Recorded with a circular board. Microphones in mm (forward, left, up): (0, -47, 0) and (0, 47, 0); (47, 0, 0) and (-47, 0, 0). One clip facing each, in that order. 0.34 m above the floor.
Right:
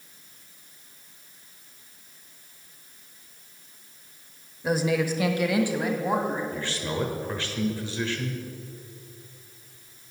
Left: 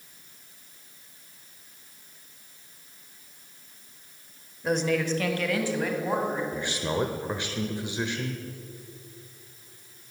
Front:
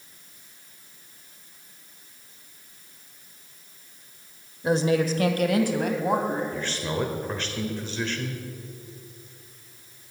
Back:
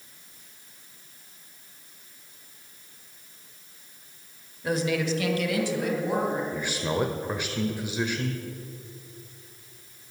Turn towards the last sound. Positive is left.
turn(degrees=125)